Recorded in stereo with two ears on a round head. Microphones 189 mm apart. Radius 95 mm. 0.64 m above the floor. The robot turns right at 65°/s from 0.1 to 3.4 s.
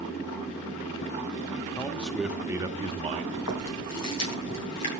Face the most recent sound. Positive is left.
turn(degrees=85)